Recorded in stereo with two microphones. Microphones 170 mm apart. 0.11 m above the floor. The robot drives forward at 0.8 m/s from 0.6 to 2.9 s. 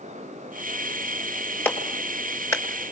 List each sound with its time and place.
1.6 s a clap: 10° left (ahead or behind), 1.8 m; by 2.6 s 15° left (ahead or behind), 1.3 m